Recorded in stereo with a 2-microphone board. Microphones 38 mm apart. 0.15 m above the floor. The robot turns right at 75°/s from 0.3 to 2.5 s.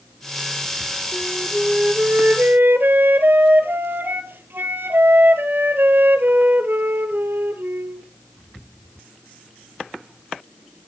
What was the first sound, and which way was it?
A flute, 160° left.